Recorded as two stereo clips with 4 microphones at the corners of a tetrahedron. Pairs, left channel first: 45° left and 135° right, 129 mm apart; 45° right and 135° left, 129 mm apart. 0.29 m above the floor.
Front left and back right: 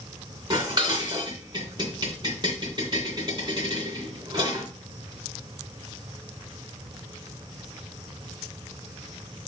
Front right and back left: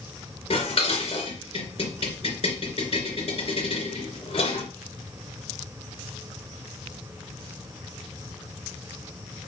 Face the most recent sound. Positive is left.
turn(degrees=-80)